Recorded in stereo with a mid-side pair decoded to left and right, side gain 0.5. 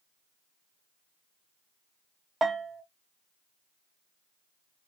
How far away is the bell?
About 0.6 m.